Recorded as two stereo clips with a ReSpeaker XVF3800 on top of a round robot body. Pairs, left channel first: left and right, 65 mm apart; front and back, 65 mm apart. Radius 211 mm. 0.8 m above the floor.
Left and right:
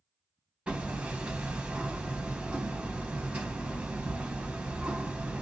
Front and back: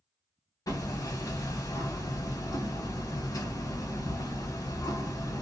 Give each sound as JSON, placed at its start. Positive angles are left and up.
{"t": 0.7, "sound": "hammering", "azimuth_deg": -15, "distance_m": 1.4}